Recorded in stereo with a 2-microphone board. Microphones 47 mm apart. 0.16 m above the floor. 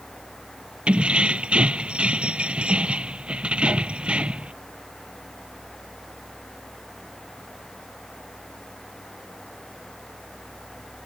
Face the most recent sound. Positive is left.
turn(degrees=-20)  # may be behind; listen again after turning